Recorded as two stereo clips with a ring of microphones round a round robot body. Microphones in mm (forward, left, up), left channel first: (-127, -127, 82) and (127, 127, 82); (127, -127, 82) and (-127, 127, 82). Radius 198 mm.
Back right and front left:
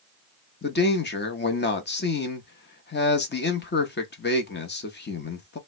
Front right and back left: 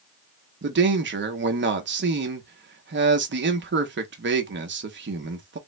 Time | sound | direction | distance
0.6 | a man speaking | straight behind | 0.9 m